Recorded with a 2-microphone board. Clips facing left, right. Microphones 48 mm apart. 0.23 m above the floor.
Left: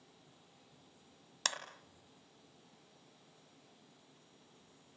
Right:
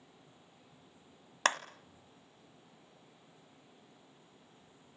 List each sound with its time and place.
1.4 s a clap: 40° right (ahead or behind), 1.5 m